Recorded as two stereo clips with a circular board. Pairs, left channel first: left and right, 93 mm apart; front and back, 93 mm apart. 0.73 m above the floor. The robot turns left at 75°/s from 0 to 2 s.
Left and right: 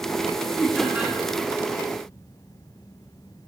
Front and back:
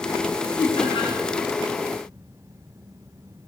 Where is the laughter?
10° left, 1.2 m; by 1.1 s 30° right, 1.2 m.